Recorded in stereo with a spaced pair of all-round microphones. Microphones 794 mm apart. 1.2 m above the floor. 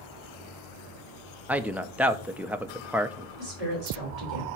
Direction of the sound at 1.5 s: Centre (ahead or behind).